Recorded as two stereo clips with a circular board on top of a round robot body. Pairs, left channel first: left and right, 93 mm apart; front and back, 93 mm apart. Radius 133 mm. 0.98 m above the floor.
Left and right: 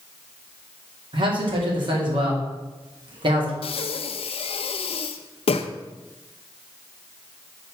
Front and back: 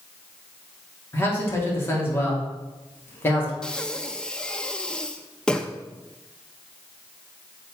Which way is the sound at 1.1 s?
65° right.